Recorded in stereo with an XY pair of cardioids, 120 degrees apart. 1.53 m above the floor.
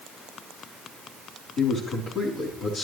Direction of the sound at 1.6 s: 60° left.